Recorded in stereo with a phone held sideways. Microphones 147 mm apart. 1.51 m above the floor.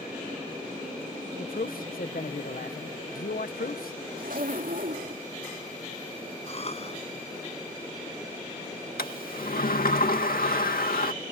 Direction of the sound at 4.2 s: 70° right (ahead or behind).